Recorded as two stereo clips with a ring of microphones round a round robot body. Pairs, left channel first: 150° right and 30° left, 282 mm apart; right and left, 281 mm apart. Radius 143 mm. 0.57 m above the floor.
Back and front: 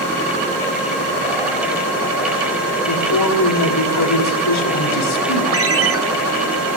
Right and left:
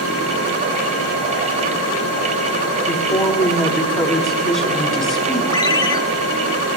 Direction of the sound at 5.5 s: 15° right.